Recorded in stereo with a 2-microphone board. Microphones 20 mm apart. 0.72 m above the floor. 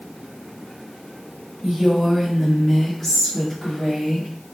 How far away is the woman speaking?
About 0.8 m.